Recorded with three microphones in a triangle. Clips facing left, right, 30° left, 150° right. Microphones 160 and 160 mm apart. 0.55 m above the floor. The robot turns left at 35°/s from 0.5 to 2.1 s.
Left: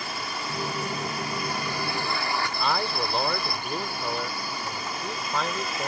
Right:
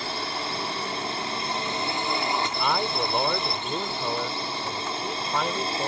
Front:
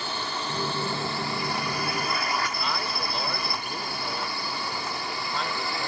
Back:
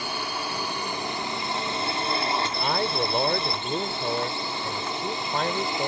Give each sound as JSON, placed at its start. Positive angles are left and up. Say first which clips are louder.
{"t": 0.0, "sound": "a drone", "louder": "right 3 dB, back 1 dB", "azimuth_deg": -85}
{"t": 2.5, "sound": "a man speaking", "louder": "right 1 dB, back 5 dB", "azimuth_deg": -170}